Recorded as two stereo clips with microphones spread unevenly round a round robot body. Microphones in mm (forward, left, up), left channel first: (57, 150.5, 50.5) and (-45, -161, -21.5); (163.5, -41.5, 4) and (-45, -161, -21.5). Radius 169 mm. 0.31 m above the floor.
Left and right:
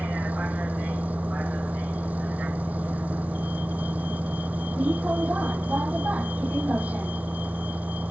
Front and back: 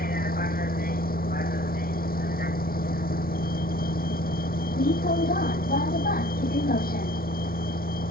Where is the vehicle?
20° right.